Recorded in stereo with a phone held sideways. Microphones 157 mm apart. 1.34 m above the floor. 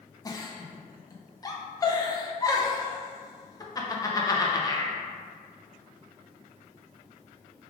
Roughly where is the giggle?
Left.